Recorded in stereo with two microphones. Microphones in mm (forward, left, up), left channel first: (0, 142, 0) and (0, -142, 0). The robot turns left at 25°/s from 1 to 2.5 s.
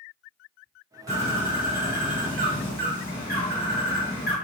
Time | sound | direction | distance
1.1 | a bird | 170° left | 1.2 m